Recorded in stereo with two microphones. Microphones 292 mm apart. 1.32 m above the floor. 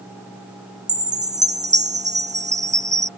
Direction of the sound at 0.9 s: 25° right (ahead or behind).